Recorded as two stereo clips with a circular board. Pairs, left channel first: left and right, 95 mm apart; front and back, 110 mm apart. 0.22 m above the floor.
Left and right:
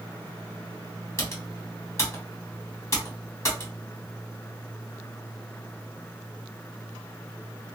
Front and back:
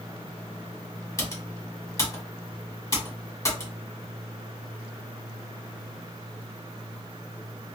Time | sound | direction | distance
1.2 | typing on a keyboard | 45° left | 1.2 m